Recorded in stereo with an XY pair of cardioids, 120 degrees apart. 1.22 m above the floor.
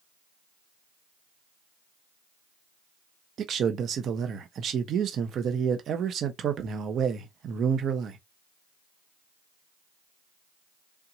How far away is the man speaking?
About 0.9 m.